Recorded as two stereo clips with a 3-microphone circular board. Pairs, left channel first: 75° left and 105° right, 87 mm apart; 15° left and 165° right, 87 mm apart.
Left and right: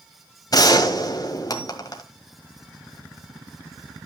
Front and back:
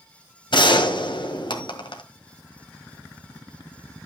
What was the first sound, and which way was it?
A gunshot, 35° left.